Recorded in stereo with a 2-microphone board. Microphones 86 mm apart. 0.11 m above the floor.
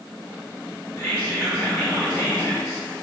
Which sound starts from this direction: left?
Whispering, at 1.0 s.